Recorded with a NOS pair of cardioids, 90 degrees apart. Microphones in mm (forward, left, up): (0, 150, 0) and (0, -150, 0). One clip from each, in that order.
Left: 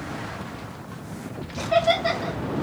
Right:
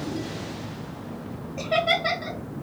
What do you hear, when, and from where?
1.6 s laughter: 5° right, 1.6 m